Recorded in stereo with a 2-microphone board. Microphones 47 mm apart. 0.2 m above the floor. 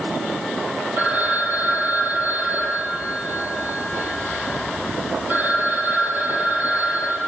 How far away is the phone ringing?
About 4 m.